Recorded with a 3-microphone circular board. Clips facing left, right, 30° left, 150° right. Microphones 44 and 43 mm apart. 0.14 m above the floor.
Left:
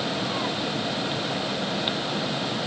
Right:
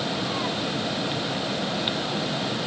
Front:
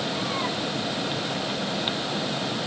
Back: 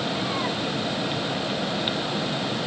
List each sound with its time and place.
Only background noise.